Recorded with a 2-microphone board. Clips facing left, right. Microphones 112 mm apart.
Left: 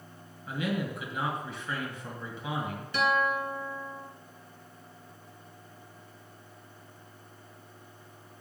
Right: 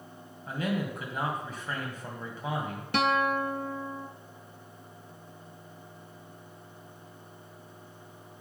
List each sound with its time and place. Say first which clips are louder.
0.5 s a man speaking: right 1 dB; 40° right (ahead or behind), 2 m
2.9 s a guitar: right 2 dB; 70° right (ahead or behind), 0.8 m